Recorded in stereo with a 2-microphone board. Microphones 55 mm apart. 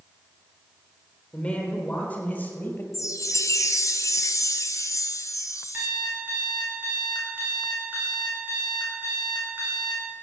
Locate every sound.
1.3 s a man speaking: 15° left (ahead or behind), 4 m; by 2.8 s 35° left (ahead or behind), 3 m
2.9 s a chime: 65° left (ahead or behind), 1.0 m
5.7 s an alarm clock: 30° right (ahead or behind), 5 m